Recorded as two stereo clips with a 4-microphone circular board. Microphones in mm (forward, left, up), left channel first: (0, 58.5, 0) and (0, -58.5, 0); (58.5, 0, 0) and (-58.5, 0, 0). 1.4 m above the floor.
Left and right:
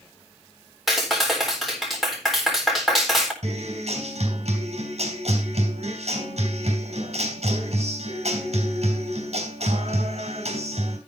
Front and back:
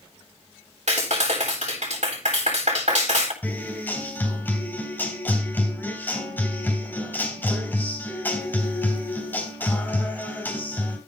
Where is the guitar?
75° right, 3.5 m.